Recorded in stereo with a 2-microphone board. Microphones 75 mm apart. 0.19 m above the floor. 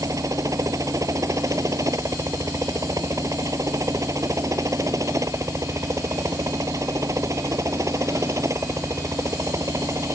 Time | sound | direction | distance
0.0 | a helicopter | 45° right (ahead or behind) | ?